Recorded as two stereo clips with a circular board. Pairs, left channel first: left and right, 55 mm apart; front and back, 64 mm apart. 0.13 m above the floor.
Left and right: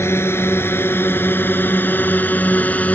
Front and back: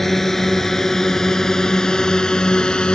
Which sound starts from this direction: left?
A drone, at 0.0 s.